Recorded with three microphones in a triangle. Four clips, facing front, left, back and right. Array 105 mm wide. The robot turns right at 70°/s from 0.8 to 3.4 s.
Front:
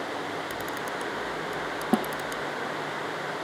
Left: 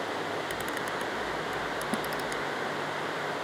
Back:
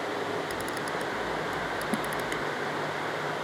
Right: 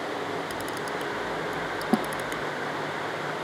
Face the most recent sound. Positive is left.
turn(degrees=60)